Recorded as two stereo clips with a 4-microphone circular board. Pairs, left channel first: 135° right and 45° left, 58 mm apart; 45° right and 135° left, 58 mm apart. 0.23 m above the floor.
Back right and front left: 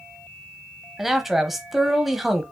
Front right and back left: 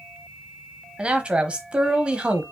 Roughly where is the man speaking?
Behind left.